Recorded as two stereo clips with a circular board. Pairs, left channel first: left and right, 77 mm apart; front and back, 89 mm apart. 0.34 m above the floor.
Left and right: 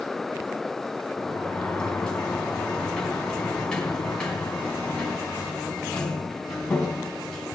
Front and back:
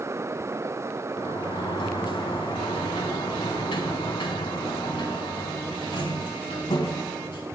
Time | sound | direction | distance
1.2 | a sliding door | 10° left | 3 m